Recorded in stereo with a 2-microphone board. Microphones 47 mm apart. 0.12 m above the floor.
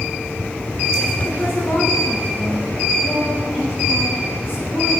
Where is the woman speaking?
45° left (ahead or behind), 7 m.